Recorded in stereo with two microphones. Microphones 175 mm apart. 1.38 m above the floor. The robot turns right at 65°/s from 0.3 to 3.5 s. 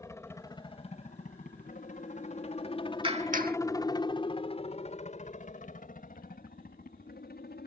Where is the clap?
30° right (ahead or behind); by 3.6 s 60° right (ahead or behind).